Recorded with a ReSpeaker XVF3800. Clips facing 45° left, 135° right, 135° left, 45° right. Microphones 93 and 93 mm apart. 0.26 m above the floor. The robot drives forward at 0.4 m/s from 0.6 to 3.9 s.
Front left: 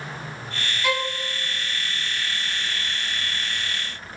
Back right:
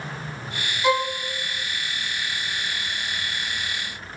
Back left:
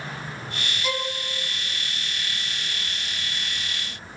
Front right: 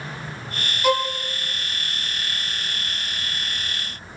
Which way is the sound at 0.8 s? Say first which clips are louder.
Back right 5 dB, front right 9 dB; 65° right.